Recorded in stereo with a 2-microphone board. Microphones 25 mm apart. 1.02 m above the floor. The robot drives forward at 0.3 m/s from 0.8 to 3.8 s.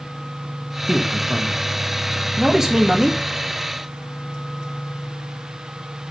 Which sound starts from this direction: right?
A man speaking, at 0.9 s.